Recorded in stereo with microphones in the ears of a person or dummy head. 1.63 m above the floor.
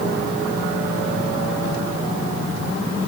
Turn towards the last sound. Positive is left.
No sound to turn to.